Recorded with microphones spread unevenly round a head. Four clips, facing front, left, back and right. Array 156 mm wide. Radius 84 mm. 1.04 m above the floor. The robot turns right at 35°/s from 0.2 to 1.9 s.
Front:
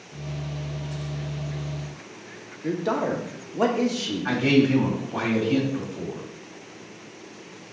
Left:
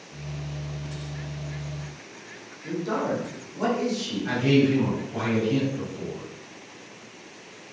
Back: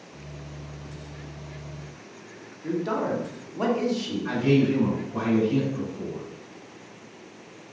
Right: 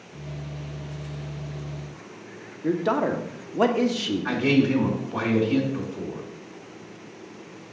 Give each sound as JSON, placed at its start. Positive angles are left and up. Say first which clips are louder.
{"t": 2.6, "sound": "a man speaking", "louder": "right 4 dB, front 2 dB", "azimuth_deg": -60, "distance_m": 1.2}
{"t": 4.2, "sound": "a man speaking", "louder": "left 1 dB, front 2 dB", "azimuth_deg": -20, "distance_m": 2.5}